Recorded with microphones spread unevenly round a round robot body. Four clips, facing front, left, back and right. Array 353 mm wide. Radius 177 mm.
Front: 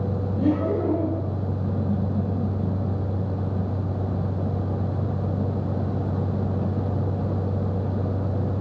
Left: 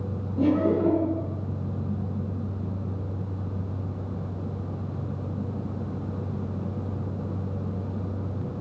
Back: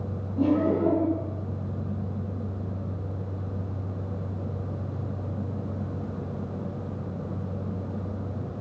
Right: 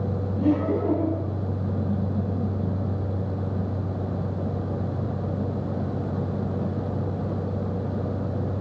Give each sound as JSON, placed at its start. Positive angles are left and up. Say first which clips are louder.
{"t": 0.4, "sound": "laughter", "louder": "left 1 dB, back 1 dB", "azimuth_deg": 90, "distance_m": 5.5}